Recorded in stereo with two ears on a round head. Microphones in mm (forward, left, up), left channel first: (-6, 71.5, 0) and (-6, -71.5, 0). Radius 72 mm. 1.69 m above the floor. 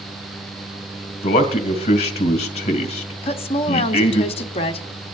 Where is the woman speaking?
40° left (ahead or behind), 0.9 m.